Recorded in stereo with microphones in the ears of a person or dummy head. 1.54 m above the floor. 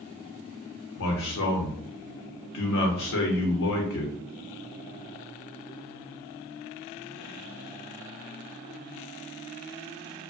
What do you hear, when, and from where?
1.0 s a man speaking: 75° left (ahead or behind), 0.8 m